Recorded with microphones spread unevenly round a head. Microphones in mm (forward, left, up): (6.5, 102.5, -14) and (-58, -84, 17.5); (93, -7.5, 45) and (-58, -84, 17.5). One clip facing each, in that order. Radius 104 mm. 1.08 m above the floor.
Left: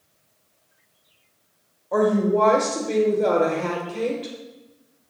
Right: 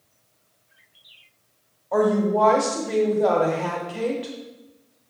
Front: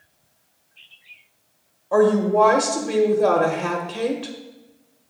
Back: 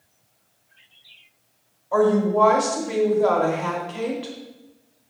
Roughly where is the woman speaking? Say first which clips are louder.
Left 1 dB, front 2 dB; ahead.